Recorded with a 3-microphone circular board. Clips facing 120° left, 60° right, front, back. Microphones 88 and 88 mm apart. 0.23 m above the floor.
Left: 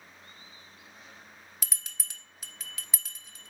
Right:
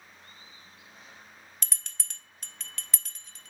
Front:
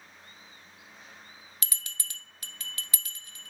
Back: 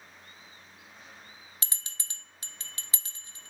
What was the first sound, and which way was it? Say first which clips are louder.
A bell: even, front 4 dB; 160° right.